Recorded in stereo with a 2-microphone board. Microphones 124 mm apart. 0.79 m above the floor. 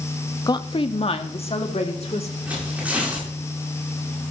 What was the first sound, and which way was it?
A woman speaking, 30° left (ahead or behind).